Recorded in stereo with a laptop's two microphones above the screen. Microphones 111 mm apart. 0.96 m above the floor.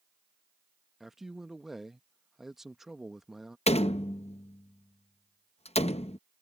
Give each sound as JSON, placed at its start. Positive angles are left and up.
{"t": 1.0, "sound": "a man speaking", "side_deg": -5}
{"t": 3.7, "sound": "a door slam", "side_deg": 70}